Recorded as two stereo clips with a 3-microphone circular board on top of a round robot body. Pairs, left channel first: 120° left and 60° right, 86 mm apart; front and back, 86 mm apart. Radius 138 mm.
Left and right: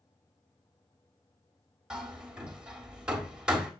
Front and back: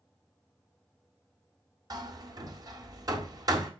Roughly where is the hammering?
Behind right.